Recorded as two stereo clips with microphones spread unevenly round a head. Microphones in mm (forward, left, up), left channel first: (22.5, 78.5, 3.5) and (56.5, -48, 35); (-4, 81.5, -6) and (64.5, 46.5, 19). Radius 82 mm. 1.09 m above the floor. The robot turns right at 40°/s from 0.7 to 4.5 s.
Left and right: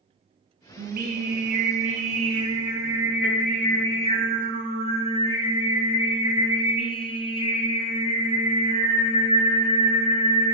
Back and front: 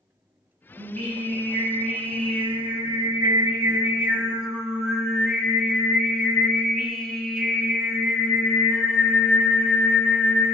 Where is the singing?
85° right, 1.9 m; by 10.6 s 60° left, 1.9 m.